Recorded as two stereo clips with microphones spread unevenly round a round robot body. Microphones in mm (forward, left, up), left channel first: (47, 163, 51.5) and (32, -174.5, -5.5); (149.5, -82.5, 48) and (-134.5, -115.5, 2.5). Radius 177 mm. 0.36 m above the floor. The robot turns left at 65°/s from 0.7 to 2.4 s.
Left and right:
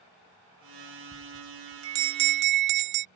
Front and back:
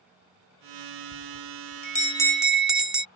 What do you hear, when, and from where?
1.1 s a bell: 5° right; by 3.0 s 90° right